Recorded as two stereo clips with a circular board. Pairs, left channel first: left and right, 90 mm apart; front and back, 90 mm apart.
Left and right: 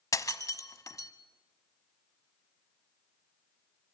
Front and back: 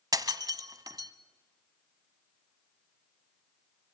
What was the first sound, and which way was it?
Breaking glass, 140° left.